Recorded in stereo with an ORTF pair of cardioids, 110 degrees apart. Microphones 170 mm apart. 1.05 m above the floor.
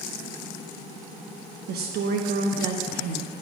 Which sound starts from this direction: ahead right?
A woman speaking, at 1.7 s.